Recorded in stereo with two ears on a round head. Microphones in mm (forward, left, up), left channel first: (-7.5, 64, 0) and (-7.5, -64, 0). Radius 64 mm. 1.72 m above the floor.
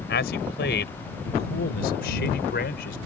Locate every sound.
0.1 s a man speaking: 90° left; by 3.0 s 80° left